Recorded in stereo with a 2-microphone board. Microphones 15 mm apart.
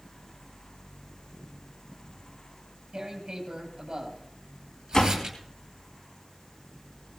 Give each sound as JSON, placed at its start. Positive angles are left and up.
{"t": 2.9, "sound": "tearing paper", "side_deg": -55, "distance_m": 10.0}
{"t": 4.9, "sound": "a door slam", "side_deg": 50, "distance_m": 3.0}